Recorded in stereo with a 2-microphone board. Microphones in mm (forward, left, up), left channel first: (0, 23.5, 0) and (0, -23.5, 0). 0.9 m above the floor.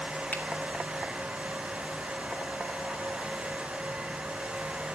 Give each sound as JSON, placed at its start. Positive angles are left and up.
{"t": 0.3, "sound": "a finger snap", "side_deg": 35, "distance_m": 1.7}